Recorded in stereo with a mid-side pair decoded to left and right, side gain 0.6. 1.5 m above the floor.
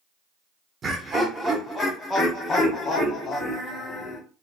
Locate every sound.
0.8 s laughter: 35° right, 0.7 m; by 4.2 s 50° left, 1.7 m